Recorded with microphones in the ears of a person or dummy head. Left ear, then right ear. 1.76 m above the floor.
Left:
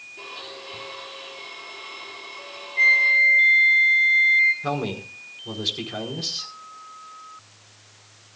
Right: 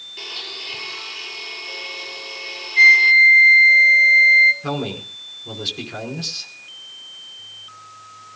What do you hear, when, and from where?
0.2 s a blender: 55° right (ahead or behind), 6.5 m
2.8 s a flute: 60° right (ahead or behind), 7 m
4.6 s a man speaking: 5° left (ahead or behind), 5 m